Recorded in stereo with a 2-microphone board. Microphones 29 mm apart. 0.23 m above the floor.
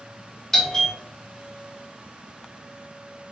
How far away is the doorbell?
About 1.5 m.